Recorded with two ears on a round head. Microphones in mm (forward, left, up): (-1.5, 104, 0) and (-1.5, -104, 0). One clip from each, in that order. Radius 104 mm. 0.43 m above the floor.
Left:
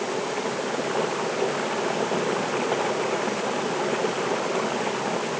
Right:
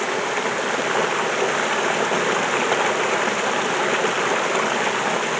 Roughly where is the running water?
Right.